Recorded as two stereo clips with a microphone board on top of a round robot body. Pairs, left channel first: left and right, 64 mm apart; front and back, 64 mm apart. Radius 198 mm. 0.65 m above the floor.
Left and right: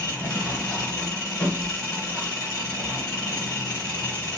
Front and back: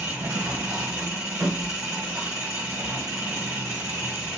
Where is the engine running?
125° left, 1.2 m.